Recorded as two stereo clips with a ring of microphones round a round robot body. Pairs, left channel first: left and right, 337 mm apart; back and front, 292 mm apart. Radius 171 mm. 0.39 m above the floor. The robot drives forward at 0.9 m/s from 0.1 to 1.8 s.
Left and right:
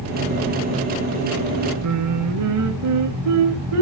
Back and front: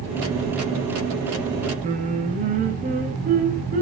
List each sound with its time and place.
1.8 s singing: 65° right, 1.7 m